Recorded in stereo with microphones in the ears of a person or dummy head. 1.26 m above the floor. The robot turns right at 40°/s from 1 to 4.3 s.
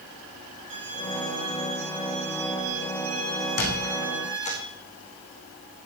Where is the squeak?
60° left (ahead or behind), 3.5 m; by 4.6 s 35° left (ahead or behind), 3.5 m.